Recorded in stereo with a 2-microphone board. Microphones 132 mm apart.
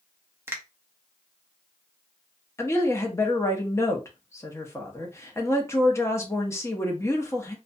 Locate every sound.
0.5 s a finger snap: 15° right (ahead or behind), 0.6 m
2.6 s a woman speaking: 20° left (ahead or behind), 0.6 m